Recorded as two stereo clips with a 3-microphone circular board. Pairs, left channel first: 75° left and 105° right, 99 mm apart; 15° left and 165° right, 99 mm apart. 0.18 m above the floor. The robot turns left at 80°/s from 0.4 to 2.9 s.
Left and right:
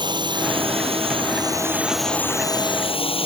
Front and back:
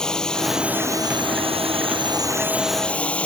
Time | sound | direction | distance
0.0 | a drone | 65° right | ?